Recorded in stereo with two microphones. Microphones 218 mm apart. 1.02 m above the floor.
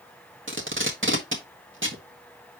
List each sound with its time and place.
0.5 s tape being pulled: 70° right (ahead or behind), 1.6 m